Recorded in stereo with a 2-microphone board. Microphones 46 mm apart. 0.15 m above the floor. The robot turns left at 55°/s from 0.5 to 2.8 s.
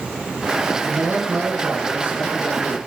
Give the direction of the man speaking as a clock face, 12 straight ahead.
2 o'clock.